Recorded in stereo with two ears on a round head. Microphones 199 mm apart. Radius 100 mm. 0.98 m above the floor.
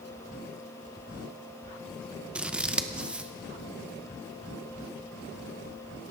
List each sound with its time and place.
2.4 s scissors: 5° right (ahead or behind), 0.6 m